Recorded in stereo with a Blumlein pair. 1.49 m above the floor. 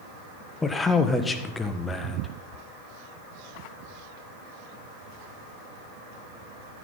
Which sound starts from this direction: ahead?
A man speaking, at 0.6 s.